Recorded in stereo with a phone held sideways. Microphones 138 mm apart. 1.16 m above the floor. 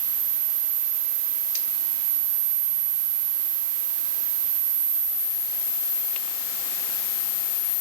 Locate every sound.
Only background noise.